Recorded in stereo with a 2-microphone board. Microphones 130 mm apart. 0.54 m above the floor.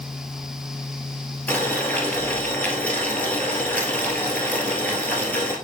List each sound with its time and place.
1.5 s boiling: 10° left (ahead or behind), 1.7 m